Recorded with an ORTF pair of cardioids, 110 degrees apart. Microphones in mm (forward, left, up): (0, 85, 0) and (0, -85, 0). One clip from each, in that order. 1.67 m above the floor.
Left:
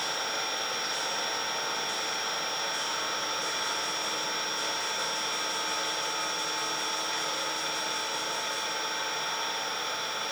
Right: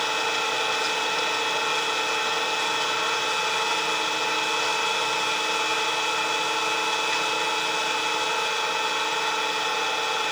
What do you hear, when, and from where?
0.0 s an engine running: 60° right, 6.5 m